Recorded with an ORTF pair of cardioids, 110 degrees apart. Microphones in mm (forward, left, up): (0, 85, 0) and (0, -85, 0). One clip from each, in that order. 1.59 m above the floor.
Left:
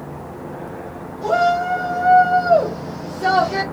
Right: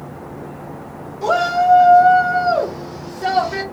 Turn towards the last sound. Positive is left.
turn(degrees=25)